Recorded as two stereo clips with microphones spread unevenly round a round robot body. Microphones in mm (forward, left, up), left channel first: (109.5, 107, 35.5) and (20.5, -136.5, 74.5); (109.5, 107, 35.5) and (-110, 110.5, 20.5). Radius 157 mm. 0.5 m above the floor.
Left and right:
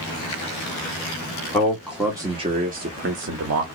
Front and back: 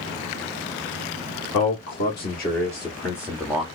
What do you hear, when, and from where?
1.5 s a man speaking: 5° right, 1.2 m; by 3.7 s 100° right, 1.2 m